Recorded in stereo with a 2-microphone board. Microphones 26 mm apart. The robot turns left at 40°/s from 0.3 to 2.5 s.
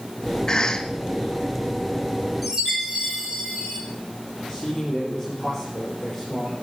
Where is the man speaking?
15° left (ahead or behind), 4 m.